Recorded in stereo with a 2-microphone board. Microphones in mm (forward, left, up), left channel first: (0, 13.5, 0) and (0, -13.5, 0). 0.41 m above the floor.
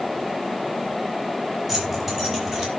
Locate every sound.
1.7 s keys jangling: 15° right (ahead or behind), 6 m; by 2.7 s 25° right (ahead or behind), 6 m